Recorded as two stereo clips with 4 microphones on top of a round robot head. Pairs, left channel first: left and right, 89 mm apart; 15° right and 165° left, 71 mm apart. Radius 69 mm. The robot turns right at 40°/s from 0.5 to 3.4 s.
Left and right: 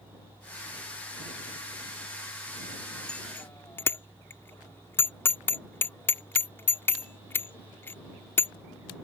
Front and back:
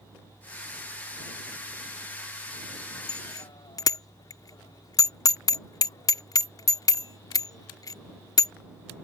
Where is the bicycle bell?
5° left; by 8.5 s 20° left.